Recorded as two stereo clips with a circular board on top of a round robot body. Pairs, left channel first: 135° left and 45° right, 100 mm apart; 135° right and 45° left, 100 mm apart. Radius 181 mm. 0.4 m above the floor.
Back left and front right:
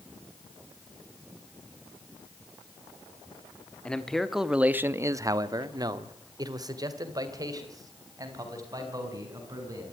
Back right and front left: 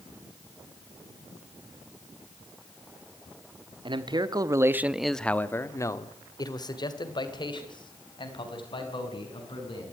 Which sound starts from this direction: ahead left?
A man speaking, at 3.9 s.